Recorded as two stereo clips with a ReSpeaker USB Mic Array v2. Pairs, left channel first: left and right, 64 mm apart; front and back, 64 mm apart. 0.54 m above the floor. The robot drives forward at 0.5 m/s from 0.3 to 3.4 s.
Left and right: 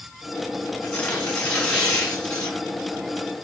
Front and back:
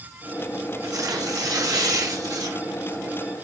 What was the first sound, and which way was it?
Tearing paper, 155° left.